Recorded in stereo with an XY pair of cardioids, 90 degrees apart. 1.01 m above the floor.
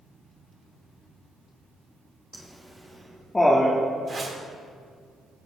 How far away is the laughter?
About 1.3 m.